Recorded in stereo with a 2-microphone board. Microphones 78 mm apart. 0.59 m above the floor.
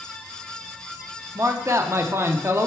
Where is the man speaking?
35° right (ahead or behind), 0.8 m.